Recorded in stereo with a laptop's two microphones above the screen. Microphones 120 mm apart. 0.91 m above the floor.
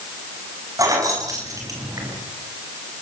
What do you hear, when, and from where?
0.8 s keys jangling: 30° right (ahead or behind), 5.5 m